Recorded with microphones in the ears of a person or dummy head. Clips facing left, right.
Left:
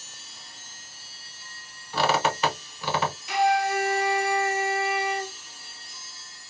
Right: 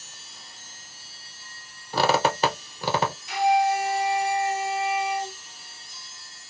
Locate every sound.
1.9 s a squeak: 35° right (ahead or behind), 0.9 m
3.3 s a flute: 55° left (ahead or behind), 0.7 m